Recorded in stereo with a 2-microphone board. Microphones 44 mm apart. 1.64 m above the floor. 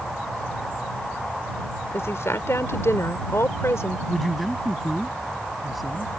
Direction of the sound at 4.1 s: 5° right (ahead or behind).